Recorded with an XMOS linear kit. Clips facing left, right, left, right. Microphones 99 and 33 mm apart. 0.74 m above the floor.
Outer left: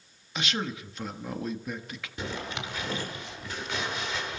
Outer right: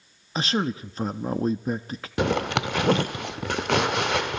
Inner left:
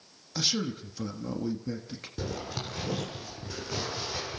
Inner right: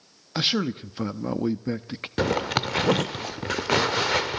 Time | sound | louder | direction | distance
0.3 | a man speaking | outer right 7 dB, inner right 6 dB | 35° right (ahead or behind) | 1.2 m
2.2 | a zipper | outer right 12 dB, inner right 12 dB | 70° right (ahead or behind) | 1.2 m